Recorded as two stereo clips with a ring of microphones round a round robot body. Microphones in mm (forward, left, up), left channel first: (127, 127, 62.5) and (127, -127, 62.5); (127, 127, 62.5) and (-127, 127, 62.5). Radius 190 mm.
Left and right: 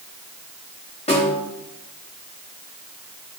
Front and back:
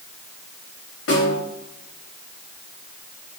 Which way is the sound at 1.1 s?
25° left.